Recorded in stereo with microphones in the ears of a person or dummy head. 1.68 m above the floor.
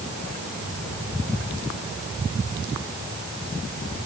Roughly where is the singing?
I don't hear singing.